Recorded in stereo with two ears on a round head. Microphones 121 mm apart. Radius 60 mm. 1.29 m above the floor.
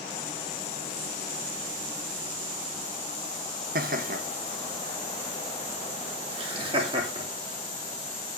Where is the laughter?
65° right (ahead or behind), 1.6 m; by 7.2 s 35° right (ahead or behind), 3.5 m.